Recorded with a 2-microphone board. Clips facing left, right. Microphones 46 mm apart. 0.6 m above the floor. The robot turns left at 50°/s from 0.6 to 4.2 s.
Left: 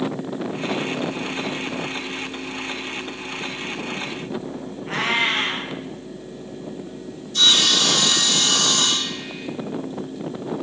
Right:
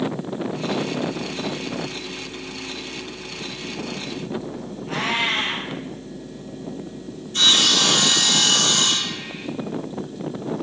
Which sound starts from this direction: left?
A cat meowing, at 4.9 s.